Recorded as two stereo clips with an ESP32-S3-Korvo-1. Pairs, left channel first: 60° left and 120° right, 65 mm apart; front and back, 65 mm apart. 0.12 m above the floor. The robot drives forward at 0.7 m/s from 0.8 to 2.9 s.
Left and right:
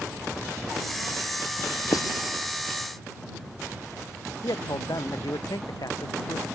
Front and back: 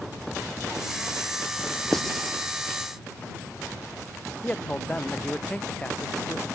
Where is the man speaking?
70° left.